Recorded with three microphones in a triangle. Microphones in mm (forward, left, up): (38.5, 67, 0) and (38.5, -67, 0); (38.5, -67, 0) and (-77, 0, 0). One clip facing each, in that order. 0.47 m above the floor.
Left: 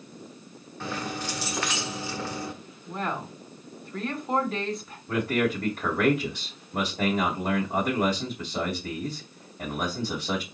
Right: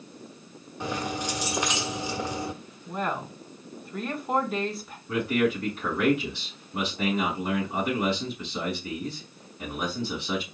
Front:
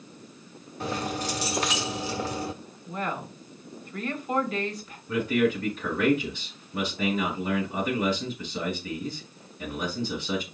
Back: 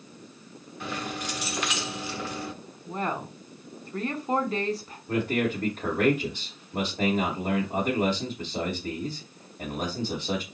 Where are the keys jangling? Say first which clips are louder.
Right 2 dB, front 4 dB; 25° right, 0.9 m.